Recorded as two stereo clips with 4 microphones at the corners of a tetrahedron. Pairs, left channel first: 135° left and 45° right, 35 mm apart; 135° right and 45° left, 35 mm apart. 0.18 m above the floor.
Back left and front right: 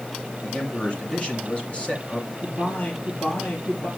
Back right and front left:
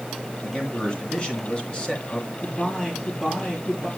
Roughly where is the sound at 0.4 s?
Behind.